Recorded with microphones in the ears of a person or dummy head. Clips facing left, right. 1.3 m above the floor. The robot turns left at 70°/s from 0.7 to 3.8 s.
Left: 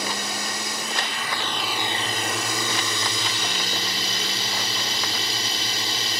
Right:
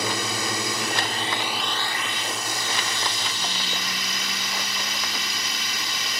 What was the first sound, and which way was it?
A drone, 115° right.